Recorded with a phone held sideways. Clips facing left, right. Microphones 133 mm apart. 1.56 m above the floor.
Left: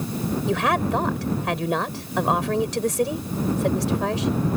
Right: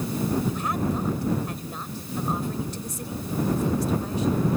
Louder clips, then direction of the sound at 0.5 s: Left 5 dB; 85° left.